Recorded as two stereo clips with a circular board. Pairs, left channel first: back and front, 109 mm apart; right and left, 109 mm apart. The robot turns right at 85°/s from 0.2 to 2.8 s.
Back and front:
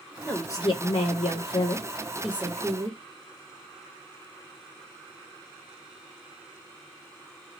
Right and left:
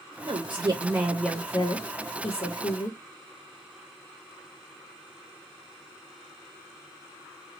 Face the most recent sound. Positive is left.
turn(degrees=-40)